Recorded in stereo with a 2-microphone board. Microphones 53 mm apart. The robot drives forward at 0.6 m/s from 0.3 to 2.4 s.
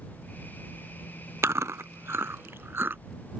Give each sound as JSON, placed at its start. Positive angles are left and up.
{"t": 1.4, "sound": "chewing", "side_deg": -60}